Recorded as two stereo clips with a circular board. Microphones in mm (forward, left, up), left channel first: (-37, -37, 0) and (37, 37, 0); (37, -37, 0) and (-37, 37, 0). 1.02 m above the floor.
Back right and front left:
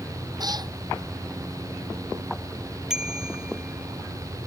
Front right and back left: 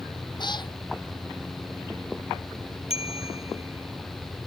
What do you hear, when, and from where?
0.4 s a cat meowing: 5° right
2.9 s a bicycle bell: 40° right